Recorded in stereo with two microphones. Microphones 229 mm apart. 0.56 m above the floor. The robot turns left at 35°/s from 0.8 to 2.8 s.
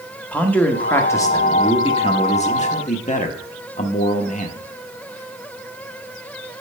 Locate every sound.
0.3 s a man speaking: 170° left, 0.9 m; by 4.6 s 100° left, 0.9 m